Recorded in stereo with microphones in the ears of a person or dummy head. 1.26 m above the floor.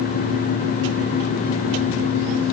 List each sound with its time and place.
Only background noise.